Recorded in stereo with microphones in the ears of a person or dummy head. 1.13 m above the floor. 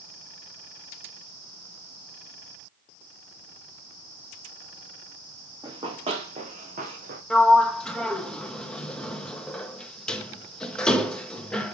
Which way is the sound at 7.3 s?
5° left (ahead or behind).